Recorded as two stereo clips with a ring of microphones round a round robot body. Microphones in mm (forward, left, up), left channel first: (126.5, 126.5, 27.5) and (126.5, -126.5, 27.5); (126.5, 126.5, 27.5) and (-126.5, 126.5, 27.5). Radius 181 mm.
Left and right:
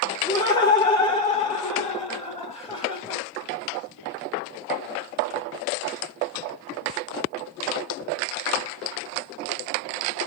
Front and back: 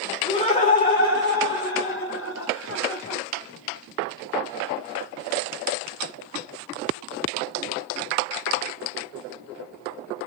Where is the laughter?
40° left, 1.1 m; by 3.2 s 15° left, 2 m.